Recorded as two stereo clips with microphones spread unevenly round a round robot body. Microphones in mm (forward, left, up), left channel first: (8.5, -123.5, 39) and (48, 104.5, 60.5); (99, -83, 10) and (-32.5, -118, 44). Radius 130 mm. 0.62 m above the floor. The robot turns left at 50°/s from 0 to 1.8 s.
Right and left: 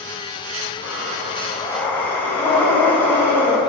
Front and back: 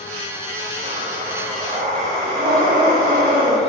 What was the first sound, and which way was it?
Breathing, 135° right.